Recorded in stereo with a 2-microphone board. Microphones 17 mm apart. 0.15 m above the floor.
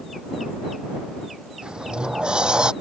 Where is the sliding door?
60° right (ahead or behind).